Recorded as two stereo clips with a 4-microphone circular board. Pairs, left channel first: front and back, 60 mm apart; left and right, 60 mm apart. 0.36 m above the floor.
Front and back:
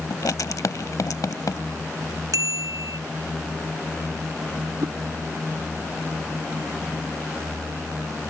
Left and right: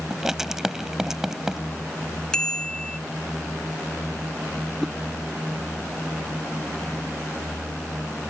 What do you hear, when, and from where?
0.1 s writing: 10° right
2.3 s a bicycle bell: 165° left
4.8 s a whoosh: 165° left